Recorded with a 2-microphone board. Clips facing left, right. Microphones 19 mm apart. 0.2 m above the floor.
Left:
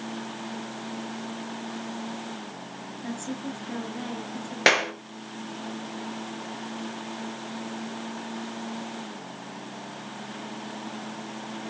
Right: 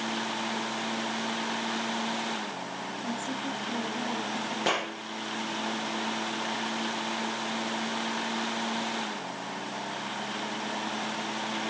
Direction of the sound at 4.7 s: 60° left (ahead or behind).